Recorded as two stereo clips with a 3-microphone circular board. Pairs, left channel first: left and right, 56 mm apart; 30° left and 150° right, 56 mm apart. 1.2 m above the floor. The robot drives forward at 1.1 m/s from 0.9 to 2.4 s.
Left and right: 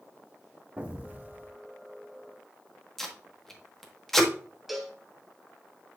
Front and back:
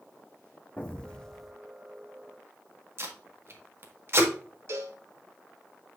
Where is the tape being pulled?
175° left, 1.6 m.